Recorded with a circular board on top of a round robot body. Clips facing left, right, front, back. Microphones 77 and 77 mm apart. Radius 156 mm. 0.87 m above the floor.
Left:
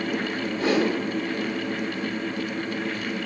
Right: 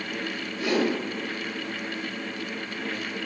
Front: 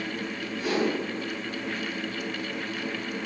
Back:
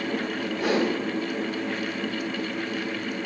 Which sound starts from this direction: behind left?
A whoosh, at 0.6 s.